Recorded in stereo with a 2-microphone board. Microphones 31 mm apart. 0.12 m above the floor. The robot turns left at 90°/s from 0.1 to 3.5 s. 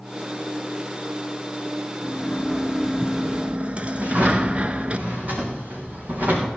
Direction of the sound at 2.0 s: 60° left.